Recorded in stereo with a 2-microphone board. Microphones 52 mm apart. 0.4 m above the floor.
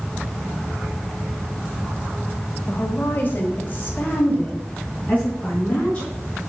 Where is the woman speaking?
35° left (ahead or behind), 1.0 m; by 6.1 s 30° left (ahead or behind), 4 m.